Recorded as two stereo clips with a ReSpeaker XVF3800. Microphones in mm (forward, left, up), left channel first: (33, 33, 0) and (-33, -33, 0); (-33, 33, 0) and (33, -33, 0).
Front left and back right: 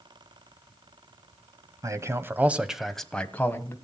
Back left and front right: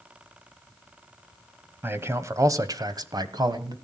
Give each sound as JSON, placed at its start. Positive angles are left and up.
{"t": 1.8, "sound": "a man speaking", "azimuth_deg": -100, "distance_m": 1.3}